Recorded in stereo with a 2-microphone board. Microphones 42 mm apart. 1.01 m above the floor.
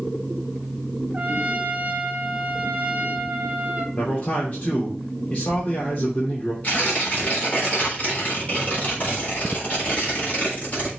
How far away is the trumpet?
About 1.8 m.